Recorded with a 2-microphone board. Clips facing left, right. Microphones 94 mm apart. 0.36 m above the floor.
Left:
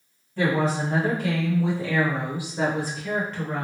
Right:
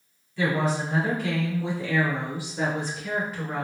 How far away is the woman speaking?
About 1.6 m.